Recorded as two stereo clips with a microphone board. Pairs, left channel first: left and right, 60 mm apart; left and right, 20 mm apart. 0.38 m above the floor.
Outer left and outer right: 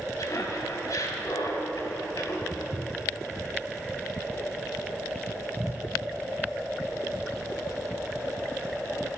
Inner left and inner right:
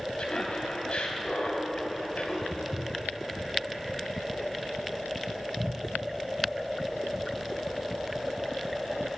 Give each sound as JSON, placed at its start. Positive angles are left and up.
{"t": 0.2, "sound": "laughter", "side_deg": 65, "distance_m": 2.5}
{"t": 2.5, "sound": "footsteps", "side_deg": -55, "distance_m": 0.8}